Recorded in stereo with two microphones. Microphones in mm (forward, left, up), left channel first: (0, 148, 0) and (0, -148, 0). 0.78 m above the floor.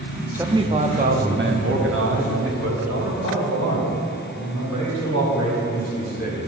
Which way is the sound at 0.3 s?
5° right (ahead or behind).